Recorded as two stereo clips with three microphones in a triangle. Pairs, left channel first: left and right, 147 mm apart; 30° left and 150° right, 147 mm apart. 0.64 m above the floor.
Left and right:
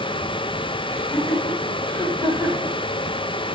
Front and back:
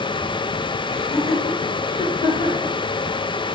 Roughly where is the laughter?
Ahead.